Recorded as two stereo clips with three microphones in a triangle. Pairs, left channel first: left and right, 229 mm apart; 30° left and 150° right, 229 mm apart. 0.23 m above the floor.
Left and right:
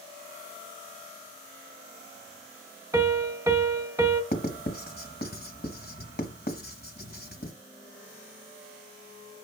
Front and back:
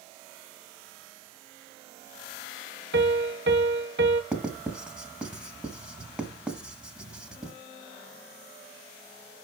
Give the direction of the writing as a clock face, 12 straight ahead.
8 o'clock.